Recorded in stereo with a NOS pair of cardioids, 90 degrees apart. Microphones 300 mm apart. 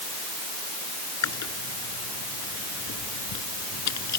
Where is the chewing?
65° left.